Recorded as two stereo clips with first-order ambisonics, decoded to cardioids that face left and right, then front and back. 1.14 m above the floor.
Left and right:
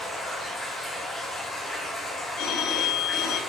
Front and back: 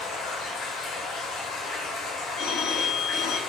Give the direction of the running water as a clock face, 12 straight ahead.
11 o'clock.